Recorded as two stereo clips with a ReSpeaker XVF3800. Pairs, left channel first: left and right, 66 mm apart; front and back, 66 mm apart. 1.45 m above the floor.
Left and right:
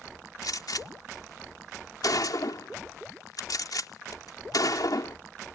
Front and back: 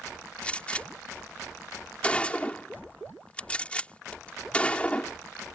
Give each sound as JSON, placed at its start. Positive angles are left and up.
{"t": 0.4, "sound": "a gunshot", "azimuth_deg": 70}